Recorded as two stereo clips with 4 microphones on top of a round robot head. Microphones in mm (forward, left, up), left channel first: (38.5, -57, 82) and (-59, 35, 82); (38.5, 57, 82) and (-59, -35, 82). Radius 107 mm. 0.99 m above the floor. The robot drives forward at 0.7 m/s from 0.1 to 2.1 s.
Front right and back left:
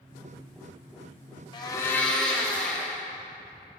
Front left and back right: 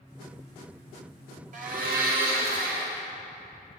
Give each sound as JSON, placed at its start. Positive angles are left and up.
{"t": 1.5, "sound": "a blender", "azimuth_deg": -100, "distance_m": 0.8}